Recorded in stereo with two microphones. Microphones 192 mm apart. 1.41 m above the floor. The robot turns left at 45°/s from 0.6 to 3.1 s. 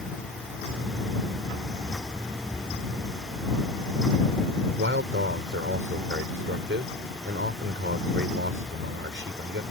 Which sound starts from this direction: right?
A man speaking, at 4.8 s.